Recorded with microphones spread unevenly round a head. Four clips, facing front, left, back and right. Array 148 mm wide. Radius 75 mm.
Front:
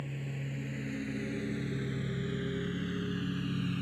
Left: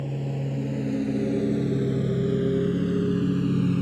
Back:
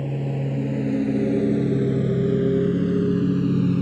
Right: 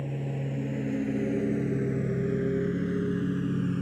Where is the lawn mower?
170° left; by 3.8 s 160° left.